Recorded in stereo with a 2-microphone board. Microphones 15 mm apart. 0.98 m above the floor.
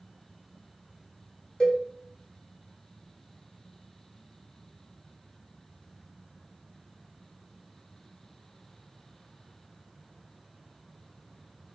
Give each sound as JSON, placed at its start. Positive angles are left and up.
{"t": 1.6, "sound": "a cowbell", "side_deg": 50, "distance_m": 1.5}